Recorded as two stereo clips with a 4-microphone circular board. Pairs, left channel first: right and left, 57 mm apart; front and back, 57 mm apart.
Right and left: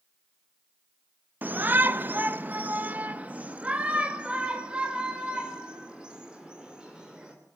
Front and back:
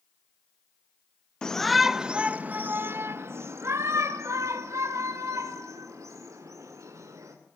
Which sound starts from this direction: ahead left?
A shout, at 1.4 s.